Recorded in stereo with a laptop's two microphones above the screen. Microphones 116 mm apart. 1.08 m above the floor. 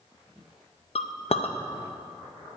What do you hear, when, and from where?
0.9 s a clink: 60° left (ahead or behind), 0.5 m